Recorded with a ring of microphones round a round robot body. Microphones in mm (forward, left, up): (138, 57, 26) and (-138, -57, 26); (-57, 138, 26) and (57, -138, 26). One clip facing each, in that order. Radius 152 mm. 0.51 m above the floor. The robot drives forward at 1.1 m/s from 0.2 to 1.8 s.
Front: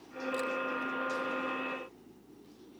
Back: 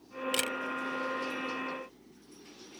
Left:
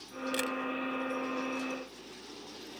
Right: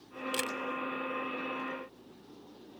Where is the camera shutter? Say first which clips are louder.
Front 2 dB, left 3 dB; 145° right; by 0.6 s 155° right.